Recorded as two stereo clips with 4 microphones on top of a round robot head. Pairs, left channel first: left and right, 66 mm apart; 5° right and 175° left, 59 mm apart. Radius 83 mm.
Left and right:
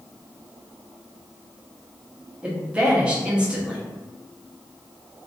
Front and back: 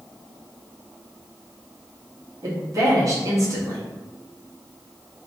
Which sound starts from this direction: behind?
A woman speaking, at 2.4 s.